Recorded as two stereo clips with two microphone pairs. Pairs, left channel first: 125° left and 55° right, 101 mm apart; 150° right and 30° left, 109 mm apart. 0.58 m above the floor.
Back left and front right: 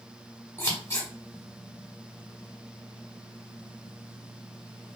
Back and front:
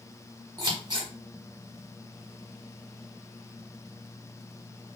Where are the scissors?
65° left, 1.0 m.